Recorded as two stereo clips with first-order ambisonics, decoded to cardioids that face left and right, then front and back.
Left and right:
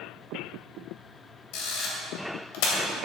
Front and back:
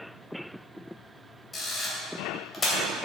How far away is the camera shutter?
About 2.5 m.